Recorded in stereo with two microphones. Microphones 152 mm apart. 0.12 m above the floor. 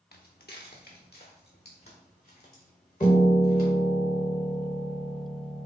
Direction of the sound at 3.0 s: 30° left (ahead or behind).